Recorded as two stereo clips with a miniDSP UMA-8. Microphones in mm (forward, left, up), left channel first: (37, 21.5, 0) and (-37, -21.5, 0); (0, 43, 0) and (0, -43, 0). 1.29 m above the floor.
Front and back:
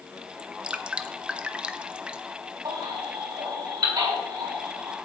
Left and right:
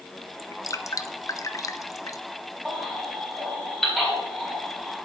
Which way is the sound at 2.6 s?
Straight behind.